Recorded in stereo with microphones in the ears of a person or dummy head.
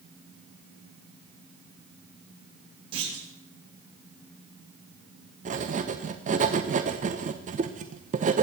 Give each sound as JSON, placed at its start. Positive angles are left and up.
{"t": 2.9, "sound": "a clunk", "side_deg": -35, "distance_m": 6.0}
{"t": 5.5, "sound": "writing", "side_deg": -45, "distance_m": 1.0}